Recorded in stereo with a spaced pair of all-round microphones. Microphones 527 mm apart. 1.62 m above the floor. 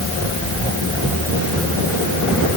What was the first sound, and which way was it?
Only background noise.